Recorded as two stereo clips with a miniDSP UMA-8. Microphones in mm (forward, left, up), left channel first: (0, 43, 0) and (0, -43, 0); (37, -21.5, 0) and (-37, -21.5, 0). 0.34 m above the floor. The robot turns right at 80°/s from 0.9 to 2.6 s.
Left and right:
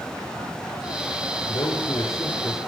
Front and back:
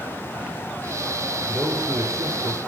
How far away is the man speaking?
About 5 m.